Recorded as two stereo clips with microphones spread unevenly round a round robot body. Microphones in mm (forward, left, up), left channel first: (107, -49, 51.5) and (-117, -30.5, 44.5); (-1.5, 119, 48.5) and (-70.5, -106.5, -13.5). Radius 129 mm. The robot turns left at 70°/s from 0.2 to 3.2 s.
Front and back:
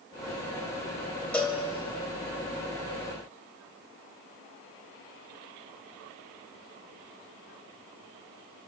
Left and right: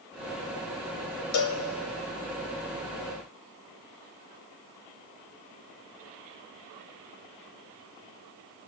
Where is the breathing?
I don't hear breathing.